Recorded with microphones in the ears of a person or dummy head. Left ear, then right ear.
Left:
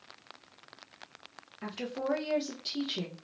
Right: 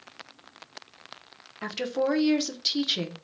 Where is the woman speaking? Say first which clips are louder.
Right 8 dB; 35° right (ahead or behind), 0.6 m.